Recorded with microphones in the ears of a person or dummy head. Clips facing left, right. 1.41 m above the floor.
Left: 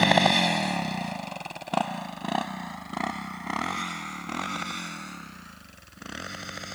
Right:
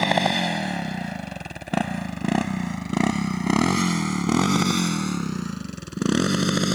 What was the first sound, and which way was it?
A motorcycle, 5° right (ahead or behind).